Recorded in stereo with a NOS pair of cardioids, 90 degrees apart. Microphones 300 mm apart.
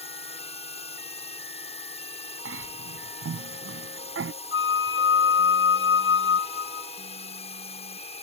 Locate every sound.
0.0 s a drone: 20° left
2.5 s a cough: 45° right
4.5 s a flute: 45° left